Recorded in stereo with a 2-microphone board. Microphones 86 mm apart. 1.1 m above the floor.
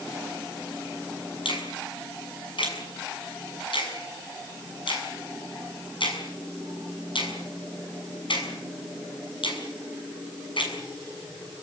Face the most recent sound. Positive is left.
turn(degrees=75)  # may be behind; listen again after turning